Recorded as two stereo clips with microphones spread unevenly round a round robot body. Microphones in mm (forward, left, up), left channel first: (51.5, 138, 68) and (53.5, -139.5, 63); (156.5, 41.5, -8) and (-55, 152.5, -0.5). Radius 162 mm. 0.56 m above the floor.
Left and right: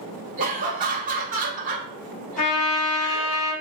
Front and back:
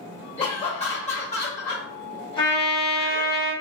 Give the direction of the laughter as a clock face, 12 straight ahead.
2 o'clock.